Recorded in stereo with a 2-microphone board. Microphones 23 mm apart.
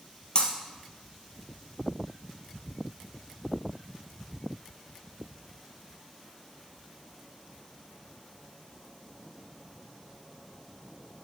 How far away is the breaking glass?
About 1.5 m.